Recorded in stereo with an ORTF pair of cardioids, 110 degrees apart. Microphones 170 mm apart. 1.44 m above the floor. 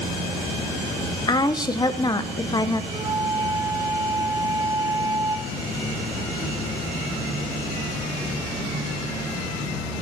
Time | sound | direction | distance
1.3 | a woman speaking | 25° left | 1.1 m
2.9 | a flute | 20° right | 1.6 m